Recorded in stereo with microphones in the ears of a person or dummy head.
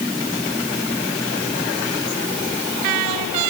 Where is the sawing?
No sawing in this recording.